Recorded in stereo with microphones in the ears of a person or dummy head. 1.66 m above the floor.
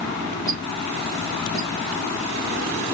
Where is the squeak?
15° left (ahead or behind), 0.8 m.